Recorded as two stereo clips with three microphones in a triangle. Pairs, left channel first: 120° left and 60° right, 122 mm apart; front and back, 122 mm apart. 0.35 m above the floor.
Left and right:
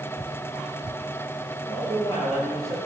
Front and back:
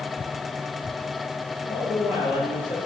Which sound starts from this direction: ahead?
A man speaking, at 1.6 s.